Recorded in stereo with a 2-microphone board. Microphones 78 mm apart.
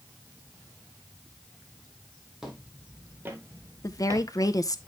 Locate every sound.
2.4 s footsteps: 5° right (ahead or behind), 2 m; by 4.3 s 45° right (ahead or behind), 1.5 m
3.8 s a woman speaking: 45° left (ahead or behind), 0.7 m